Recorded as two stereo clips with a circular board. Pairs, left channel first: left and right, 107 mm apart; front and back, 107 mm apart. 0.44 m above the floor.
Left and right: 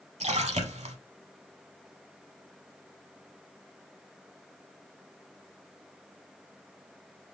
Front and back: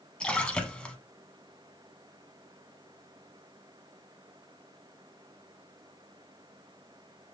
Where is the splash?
80° right, 0.8 m.